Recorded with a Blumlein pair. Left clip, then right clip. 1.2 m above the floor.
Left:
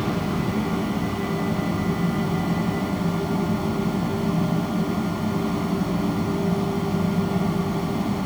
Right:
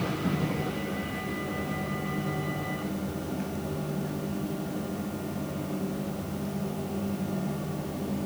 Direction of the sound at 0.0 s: 50° left.